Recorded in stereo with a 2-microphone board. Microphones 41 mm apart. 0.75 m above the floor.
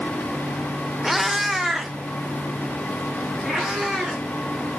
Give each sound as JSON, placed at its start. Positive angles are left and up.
{"t": 1.0, "sound": "a cat meowing", "side_deg": -5, "distance_m": 0.7}